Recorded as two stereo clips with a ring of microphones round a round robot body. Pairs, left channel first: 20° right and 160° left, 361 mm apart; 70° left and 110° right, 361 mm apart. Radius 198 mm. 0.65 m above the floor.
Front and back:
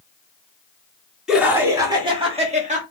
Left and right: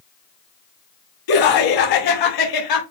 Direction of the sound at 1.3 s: 70° left.